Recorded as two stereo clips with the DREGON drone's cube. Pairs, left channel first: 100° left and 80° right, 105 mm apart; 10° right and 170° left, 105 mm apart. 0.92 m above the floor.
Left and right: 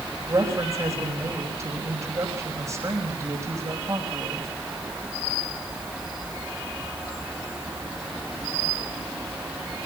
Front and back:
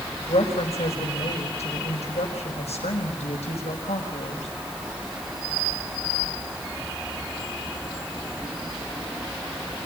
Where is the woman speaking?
20° right, 5 m.